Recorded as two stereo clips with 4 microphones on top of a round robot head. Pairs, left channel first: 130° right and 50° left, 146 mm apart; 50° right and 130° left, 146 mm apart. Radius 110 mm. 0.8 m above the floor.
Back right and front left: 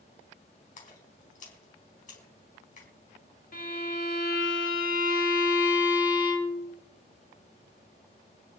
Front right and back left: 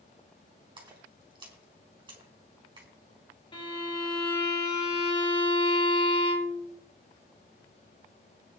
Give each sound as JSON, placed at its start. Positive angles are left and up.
{"t": 0.8, "sound": "a splash", "azimuth_deg": -170, "distance_m": 4.0}
{"t": 3.5, "sound": "a violin", "azimuth_deg": -105, "distance_m": 4.0}